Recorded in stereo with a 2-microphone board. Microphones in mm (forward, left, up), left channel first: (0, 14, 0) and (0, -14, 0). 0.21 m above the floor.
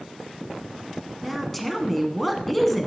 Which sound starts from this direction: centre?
A woman speaking, at 1.2 s.